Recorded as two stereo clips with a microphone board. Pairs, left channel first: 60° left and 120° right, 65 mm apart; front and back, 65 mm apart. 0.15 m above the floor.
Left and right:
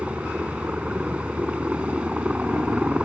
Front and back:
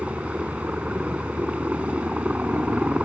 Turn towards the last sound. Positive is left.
turn(degrees=-155)